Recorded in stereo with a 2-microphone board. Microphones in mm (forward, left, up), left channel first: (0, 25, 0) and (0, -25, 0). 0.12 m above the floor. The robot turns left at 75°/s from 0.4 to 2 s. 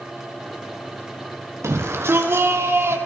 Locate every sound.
1.6 s a shout: 70° right (ahead or behind), 3.5 m; by 3.0 s 55° right (ahead or behind), 3.5 m